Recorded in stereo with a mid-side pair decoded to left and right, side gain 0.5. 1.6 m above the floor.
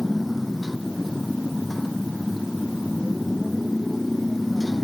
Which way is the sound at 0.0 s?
10° left.